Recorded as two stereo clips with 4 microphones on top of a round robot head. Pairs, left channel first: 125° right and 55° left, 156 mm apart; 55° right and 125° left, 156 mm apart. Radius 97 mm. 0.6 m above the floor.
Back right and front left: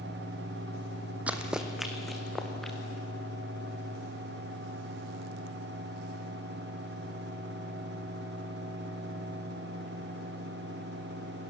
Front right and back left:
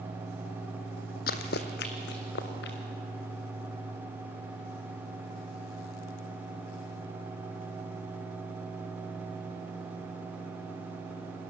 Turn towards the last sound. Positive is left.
turn(degrees=-40)